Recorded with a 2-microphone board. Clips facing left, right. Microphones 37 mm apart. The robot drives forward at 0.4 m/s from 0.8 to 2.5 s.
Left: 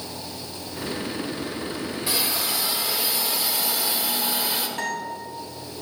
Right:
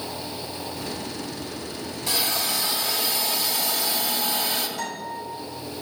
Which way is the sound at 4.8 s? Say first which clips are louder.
Left 3 dB; 50° left (ahead or behind).